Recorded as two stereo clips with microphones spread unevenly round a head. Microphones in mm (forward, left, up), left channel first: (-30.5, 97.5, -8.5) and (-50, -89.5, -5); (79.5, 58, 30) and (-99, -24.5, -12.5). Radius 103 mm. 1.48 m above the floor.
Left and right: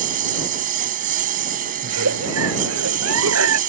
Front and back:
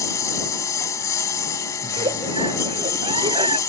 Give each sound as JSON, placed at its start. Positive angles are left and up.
{"t": 0.0, "sound": "a lawn mower", "azimuth_deg": -45}
{"t": 1.8, "sound": "a giggle", "azimuth_deg": -85}